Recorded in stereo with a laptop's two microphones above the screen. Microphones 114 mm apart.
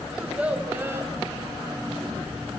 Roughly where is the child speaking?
Centre.